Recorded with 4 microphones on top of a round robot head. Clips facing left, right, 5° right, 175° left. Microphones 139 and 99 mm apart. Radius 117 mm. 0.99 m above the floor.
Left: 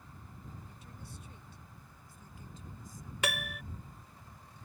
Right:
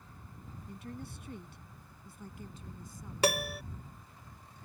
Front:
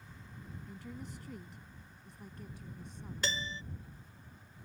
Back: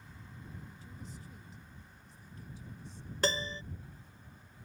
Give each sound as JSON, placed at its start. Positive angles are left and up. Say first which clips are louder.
{"t": 0.7, "sound": "a woman speaking", "louder": "right 8 dB, front 4 dB", "azimuth_deg": -50}
{"t": 3.2, "sound": "a piano", "louder": "right 7 dB, back 6 dB", "azimuth_deg": -140}